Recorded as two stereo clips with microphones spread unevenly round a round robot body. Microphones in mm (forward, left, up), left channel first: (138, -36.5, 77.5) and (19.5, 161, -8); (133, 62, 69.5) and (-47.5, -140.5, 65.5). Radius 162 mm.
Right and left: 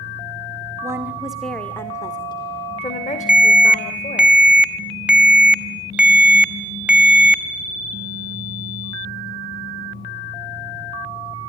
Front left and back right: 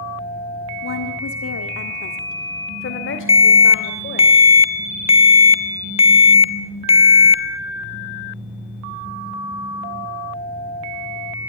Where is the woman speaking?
70° left, 1.7 m; by 4.3 s straight ahead, 3.5 m.